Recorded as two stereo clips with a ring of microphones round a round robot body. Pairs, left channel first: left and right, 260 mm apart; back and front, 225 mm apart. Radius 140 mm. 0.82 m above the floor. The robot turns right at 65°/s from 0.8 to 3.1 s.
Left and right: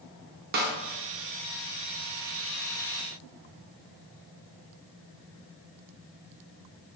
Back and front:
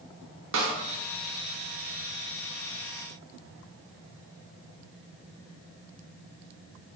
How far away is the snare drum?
About 0.5 m.